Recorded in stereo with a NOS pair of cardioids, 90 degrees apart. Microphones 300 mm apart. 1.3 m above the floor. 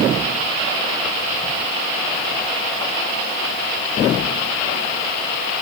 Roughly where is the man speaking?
I don't hear a man speaking.